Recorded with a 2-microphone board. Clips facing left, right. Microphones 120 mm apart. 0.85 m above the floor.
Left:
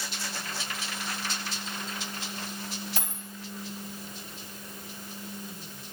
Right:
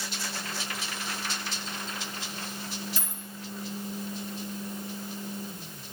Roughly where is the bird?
No bird in this recording.